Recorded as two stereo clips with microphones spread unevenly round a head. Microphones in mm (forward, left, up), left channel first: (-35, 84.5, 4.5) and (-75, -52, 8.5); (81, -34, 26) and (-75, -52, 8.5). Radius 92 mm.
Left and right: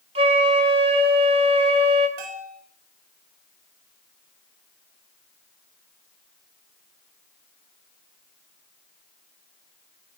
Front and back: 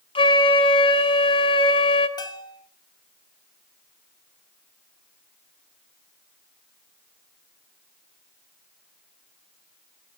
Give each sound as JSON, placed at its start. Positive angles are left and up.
{"t": 0.1, "sound": "a flute", "azimuth_deg": -45, "distance_m": 2.5}
{"t": 2.2, "sound": "a bell", "azimuth_deg": -55, "distance_m": 4.0}